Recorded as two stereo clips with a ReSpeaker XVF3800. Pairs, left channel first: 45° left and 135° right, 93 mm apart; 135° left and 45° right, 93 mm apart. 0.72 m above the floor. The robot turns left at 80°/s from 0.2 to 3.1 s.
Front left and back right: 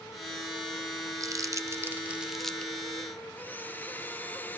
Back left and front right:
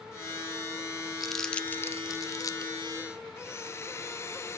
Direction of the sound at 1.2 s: 130° right.